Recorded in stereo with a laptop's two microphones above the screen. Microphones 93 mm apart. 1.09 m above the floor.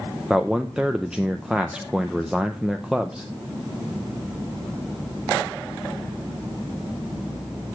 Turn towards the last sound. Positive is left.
turn(degrees=-5)  # may be behind; listen again after turning